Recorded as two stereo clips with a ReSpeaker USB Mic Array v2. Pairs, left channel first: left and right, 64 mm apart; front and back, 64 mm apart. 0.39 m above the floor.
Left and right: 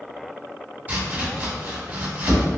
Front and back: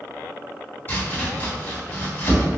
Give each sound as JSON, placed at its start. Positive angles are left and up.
{"t": 0.9, "sound": "chopping", "azimuth_deg": -40, "distance_m": 1.1}